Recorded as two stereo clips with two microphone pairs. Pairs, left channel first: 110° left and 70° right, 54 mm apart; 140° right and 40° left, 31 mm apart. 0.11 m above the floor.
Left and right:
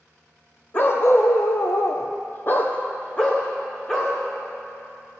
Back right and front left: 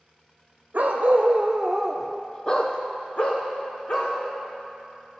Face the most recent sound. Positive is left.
turn(degrees=-175)